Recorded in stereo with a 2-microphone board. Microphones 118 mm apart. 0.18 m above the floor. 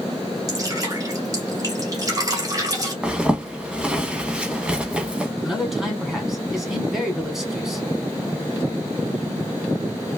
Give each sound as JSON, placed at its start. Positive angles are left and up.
{"t": 0.5, "sound": "dripping", "side_deg": -30, "distance_m": 1.6}
{"t": 3.0, "sound": "a zipper", "side_deg": -10, "distance_m": 0.7}
{"t": 5.4, "sound": "a man speaking", "side_deg": 0, "distance_m": 1.3}